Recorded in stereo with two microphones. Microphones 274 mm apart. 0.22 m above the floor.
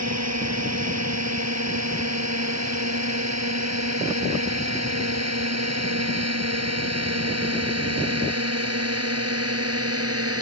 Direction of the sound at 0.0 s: 75° right (ahead or behind).